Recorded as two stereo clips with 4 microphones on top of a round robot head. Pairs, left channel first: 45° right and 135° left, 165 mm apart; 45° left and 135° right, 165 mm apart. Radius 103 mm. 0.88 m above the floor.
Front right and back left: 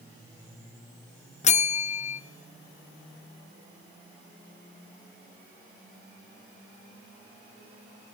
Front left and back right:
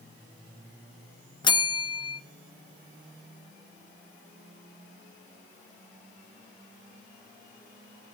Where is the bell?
10° right, 0.5 m.